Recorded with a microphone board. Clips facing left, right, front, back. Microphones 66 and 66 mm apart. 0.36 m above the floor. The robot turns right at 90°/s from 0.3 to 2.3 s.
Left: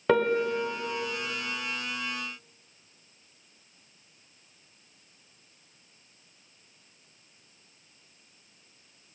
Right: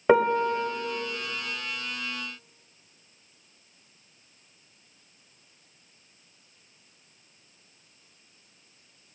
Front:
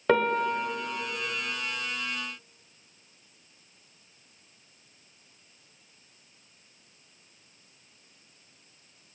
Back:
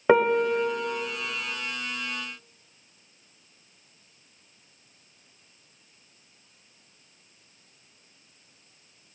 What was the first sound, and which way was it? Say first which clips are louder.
A piano: right 3 dB, back 4 dB; 135° right.